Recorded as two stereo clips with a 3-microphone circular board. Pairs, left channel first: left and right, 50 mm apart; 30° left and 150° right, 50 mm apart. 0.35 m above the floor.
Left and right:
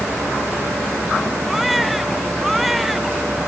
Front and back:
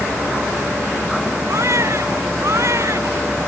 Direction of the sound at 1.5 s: 175° right.